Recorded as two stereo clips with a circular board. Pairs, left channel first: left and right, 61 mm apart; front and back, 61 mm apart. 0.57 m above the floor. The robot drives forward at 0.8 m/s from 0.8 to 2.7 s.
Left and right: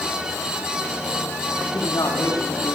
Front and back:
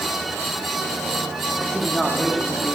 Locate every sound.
1.7 s a man speaking: 90° left, 4.5 m; by 2.8 s 100° left, 4.5 m